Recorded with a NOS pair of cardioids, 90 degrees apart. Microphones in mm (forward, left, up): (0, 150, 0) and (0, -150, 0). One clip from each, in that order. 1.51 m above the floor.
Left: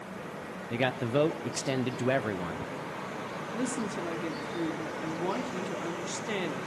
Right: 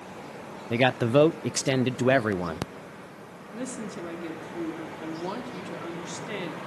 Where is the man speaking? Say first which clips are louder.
Right 7 dB; 30° right, 0.5 m.